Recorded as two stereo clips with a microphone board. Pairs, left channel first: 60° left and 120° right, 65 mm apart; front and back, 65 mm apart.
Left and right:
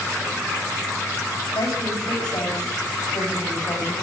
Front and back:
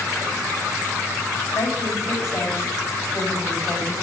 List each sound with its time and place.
1.6 s a woman speaking: 50° left, 7 m